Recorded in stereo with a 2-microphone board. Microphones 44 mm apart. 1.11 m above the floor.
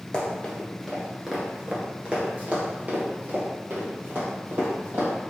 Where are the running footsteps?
20° left (ahead or behind), 1.3 m; by 5.1 s 45° right (ahead or behind), 2.5 m.